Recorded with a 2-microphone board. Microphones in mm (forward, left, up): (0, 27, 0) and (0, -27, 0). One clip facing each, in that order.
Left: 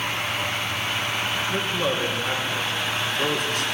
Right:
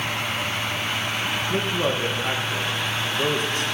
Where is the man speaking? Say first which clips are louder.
Right 2 dB; 30° right (ahead or behind), 4 m.